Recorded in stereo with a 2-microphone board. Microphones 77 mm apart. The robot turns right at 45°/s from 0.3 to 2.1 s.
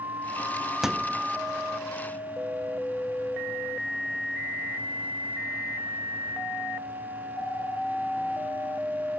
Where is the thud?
5° right (ahead or behind), 0.6 m; by 1.2 s 20° right (ahead or behind), 0.6 m.